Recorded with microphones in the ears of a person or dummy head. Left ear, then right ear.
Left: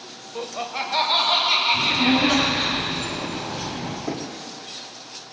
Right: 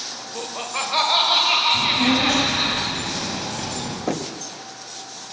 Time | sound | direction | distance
0.3 | laughter | centre (ahead or behind) | 0.8 m
1.7 | a child speaking | 20° right (ahead or behind) | 7 m
4.1 | knocking | 40° right (ahead or behind) | 1.0 m